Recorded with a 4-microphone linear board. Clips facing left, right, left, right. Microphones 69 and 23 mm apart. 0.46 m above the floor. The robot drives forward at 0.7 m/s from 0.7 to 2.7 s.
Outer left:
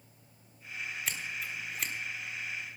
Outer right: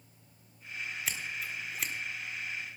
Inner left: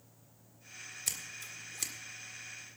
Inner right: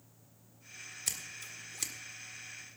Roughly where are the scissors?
Centre.